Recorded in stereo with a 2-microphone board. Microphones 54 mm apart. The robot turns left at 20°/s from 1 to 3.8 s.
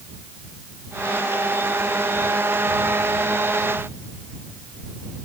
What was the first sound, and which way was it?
Only background noise.